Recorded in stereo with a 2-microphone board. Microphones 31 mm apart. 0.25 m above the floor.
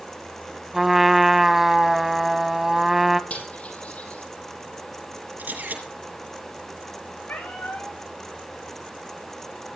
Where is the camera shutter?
75° right (ahead or behind), 5.5 m.